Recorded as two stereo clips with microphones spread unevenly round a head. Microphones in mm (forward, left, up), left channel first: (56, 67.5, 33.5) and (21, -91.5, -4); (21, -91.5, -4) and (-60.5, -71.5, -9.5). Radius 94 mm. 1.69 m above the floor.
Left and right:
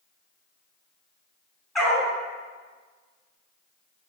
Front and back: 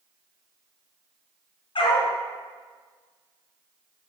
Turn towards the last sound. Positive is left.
turn(degrees=-5)